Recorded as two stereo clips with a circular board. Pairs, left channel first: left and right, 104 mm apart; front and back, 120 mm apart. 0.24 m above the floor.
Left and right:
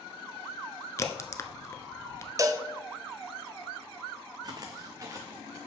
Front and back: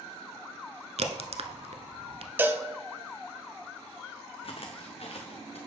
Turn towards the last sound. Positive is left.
turn(degrees=-30)